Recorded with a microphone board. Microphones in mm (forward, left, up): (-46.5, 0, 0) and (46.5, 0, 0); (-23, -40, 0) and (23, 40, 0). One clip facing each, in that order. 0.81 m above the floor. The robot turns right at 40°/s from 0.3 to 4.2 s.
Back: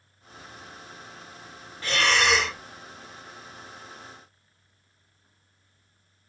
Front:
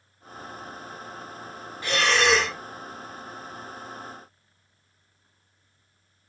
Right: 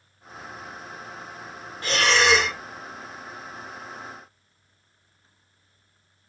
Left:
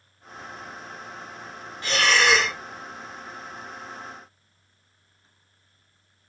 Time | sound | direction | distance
1.8 | breathing | 75° right | 1.1 m